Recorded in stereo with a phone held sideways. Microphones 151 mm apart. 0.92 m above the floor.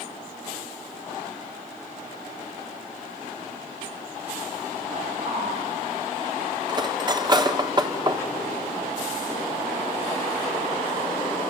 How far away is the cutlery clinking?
About 1.3 m.